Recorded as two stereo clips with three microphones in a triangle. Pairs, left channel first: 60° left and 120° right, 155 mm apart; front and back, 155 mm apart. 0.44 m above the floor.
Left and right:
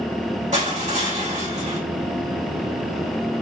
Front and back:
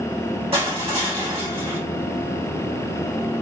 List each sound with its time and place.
0.5 s crushing: 135° right, 3 m